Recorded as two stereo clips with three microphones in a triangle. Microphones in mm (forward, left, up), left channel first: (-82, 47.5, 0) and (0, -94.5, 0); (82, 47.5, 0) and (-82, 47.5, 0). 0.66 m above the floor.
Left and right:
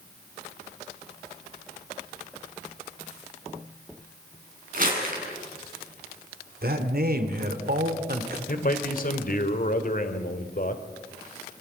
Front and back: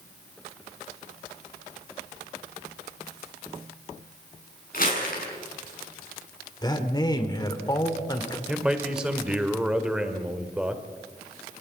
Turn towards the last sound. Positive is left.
turn(degrees=95)